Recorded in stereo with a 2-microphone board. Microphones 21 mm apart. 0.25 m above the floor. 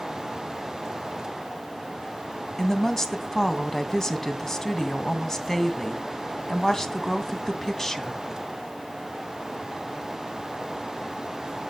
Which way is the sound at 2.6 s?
30° left (ahead or behind).